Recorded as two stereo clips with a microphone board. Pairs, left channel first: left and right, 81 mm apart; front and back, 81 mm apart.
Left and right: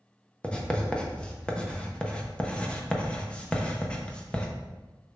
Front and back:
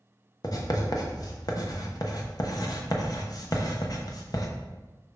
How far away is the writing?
About 1.0 m.